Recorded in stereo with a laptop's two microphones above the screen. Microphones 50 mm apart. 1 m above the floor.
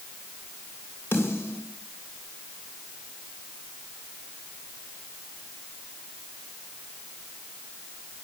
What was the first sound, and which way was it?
A snare drum, 40° left (ahead or behind).